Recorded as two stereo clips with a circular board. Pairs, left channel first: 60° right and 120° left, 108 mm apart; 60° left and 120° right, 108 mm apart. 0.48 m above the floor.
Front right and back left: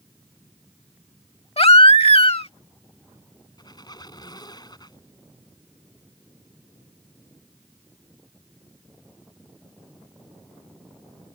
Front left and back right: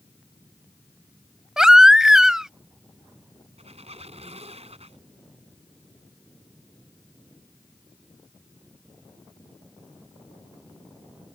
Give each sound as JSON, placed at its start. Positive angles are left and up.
{"t": 1.6, "sound": "a baby crying", "azimuth_deg": -35}
{"t": 3.6, "sound": "a squeak", "azimuth_deg": -110}